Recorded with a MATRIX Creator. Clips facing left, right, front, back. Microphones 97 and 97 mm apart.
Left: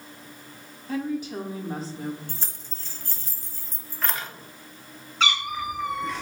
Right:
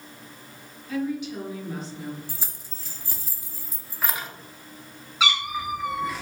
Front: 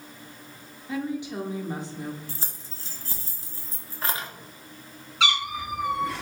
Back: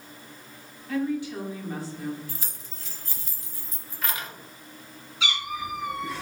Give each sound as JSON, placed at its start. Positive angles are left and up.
{"t": 0.9, "sound": "a woman speaking", "azimuth_deg": 60, "distance_m": 0.9}
{"t": 2.3, "sound": "keys jangling", "azimuth_deg": -15, "distance_m": 0.7}
{"t": 5.2, "sound": "a cat meowing", "azimuth_deg": -10, "distance_m": 1.1}